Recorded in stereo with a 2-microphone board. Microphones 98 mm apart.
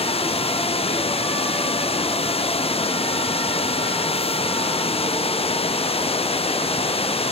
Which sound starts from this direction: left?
Running water, at 0.0 s.